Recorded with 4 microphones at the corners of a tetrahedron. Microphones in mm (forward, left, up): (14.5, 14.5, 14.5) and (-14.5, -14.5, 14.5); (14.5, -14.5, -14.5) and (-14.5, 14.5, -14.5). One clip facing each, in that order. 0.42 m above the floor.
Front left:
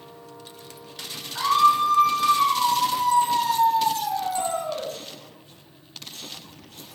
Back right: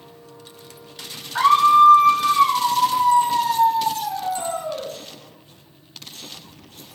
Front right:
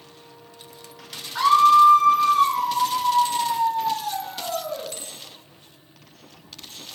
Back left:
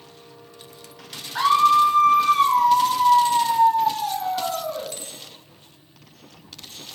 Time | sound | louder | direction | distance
1.4 | a scream | back right 6 dB, front right 2 dB | 165° right | 2 m